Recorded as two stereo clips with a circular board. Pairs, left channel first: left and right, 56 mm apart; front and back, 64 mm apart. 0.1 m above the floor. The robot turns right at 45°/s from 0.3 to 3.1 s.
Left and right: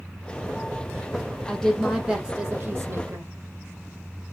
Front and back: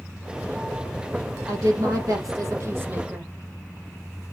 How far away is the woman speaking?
About 3.5 m.